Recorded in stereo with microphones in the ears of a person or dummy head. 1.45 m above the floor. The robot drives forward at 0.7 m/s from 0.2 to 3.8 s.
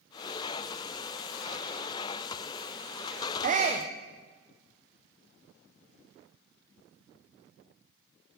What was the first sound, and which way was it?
A shout, 45° right (ahead or behind).